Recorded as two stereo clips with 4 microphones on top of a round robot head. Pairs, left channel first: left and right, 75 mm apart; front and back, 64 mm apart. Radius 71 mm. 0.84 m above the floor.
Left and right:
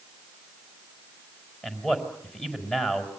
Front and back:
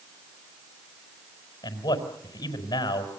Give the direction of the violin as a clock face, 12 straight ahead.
I don't hear a violin.